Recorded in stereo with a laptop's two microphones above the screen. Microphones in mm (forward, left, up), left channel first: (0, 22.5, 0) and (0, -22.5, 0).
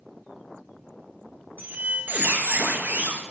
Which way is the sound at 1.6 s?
40° right (ahead or behind).